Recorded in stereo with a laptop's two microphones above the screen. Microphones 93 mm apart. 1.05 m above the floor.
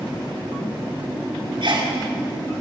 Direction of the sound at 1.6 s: 65° right (ahead or behind).